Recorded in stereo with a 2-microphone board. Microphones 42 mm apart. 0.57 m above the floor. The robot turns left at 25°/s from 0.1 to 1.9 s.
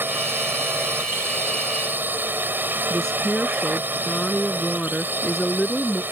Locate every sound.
0.0 s a drone: 70° right; by 6.1 s 115° right
2.9 s a woman speaking: 10° left (ahead or behind)